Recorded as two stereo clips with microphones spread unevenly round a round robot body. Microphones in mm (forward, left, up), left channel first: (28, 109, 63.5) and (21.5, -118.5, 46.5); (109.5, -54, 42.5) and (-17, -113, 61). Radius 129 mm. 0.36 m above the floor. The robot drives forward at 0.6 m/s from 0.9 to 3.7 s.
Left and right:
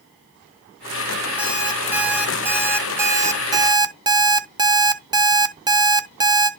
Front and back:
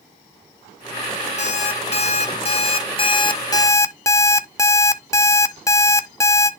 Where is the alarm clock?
10° right, 2.0 m; by 6.5 s 30° right, 0.8 m.